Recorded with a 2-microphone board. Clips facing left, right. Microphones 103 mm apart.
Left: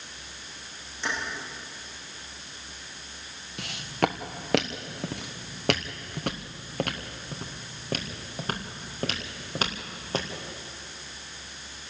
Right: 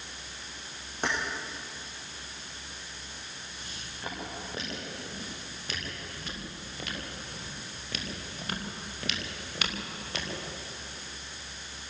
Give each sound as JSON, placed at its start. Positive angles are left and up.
{"t": 1.0, "sound": "keys jangling", "side_deg": -50, "distance_m": 8.0}
{"t": 3.6, "sound": "footsteps", "side_deg": 80, "distance_m": 2.0}